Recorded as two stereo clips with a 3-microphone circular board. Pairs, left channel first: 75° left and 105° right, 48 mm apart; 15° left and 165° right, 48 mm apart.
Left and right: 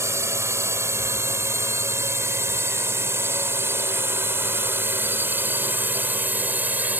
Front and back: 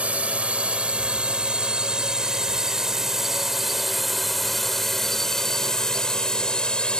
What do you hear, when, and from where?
0.0 s a drone: 105° right; by 7.0 s 55° right